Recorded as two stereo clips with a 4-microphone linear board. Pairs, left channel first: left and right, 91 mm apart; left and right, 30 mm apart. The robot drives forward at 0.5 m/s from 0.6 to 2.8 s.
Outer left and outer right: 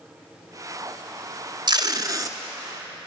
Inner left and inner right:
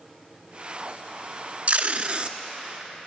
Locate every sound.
1.7 s tape being pulled: 55° right (ahead or behind), 0.7 m; by 2.4 s 40° right (ahead or behind), 0.9 m